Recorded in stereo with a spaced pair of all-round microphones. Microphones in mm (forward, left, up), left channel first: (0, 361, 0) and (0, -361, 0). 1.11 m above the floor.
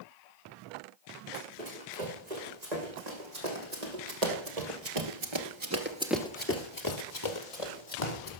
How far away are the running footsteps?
About 5.5 m.